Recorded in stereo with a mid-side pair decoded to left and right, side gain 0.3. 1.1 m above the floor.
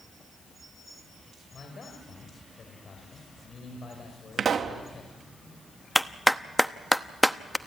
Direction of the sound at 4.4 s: 65° right.